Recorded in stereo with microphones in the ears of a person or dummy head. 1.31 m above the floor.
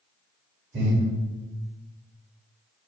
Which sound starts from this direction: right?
Breathing, at 0.7 s.